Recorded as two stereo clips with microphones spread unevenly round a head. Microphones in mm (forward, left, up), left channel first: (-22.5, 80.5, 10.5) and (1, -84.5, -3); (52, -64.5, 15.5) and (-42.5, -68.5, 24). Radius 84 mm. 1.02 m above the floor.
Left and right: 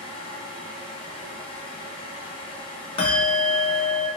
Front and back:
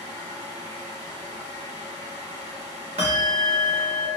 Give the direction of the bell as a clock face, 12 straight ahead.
7 o'clock.